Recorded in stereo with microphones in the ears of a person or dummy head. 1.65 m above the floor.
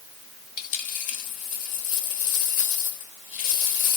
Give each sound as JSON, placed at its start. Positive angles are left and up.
{"t": 0.6, "sound": "a dropped coin", "side_deg": 50, "distance_m": 2.5}